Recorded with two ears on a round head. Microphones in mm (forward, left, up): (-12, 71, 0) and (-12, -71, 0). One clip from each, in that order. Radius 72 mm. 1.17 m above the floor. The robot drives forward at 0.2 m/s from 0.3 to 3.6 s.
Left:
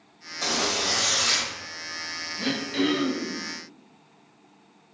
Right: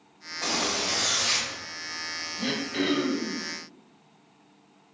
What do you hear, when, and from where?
0.4 s a zipper: 80° left, 2.5 m; by 1.5 s 85° left, 2.5 m
2.4 s throat clearing: 40° left (ahead or behind), 2 m